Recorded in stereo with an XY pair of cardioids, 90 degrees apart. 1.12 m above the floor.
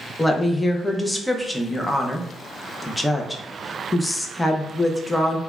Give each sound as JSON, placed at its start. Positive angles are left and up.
{"t": 0.2, "sound": "a woman speaking", "azimuth_deg": 15, "distance_m": 0.5}